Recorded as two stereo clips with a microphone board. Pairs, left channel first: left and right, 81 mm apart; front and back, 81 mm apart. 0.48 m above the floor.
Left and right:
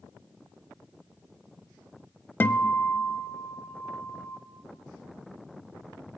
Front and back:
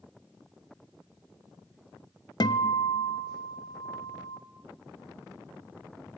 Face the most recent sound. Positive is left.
turn(degrees=25)